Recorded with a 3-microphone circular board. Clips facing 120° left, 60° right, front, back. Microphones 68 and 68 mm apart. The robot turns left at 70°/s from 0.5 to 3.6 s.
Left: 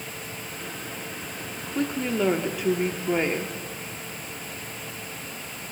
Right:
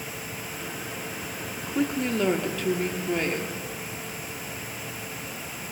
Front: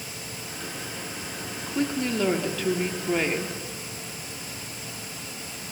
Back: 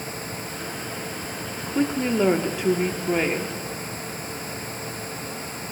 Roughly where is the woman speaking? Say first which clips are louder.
Right 1 dB, back 3 dB; behind right.